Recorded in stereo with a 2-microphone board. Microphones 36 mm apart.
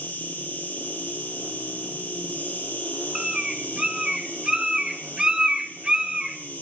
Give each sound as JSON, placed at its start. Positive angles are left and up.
{"t": 0.0, "sound": "an insect", "side_deg": 55, "distance_m": 1.9}
{"t": 3.1, "sound": "a bird", "side_deg": -20, "distance_m": 0.6}